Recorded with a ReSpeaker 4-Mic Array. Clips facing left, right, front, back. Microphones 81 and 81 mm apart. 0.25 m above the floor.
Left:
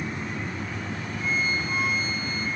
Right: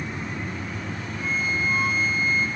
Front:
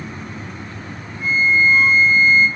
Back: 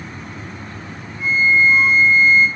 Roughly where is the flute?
Ahead left.